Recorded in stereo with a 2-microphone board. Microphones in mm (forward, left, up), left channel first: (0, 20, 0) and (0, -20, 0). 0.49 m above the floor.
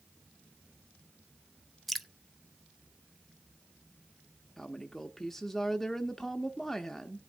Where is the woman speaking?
10° left (ahead or behind), 0.7 m.